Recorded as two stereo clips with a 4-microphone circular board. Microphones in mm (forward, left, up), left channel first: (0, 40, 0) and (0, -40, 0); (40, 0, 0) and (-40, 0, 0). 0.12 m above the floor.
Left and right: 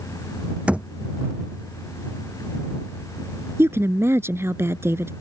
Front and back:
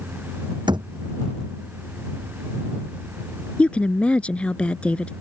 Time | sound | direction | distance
0.7 | a thud | 165° right | ?
3.6 | a woman speaking | 65° right | ?